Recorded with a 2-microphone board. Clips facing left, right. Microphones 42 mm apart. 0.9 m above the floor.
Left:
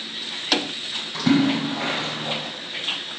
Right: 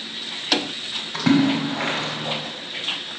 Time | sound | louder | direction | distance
1.1 | a splash | right 1 dB | 90° right | 1.7 m